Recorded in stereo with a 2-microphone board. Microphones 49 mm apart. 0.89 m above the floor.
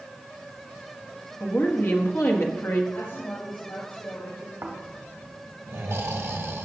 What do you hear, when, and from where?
1.4 s a woman speaking: 55° left (ahead or behind), 1.6 m
2.9 s a woman speaking: 55° left (ahead or behind), 3.5 m
4.6 s snoring: 70° right (ahead or behind), 1.5 m